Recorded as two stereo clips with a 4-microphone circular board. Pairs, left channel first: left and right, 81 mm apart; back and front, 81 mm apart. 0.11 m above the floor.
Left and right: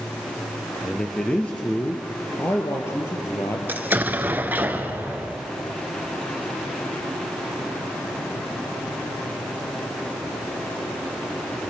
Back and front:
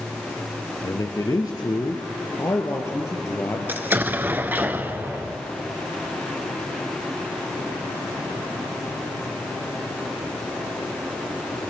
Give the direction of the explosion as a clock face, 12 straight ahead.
1 o'clock.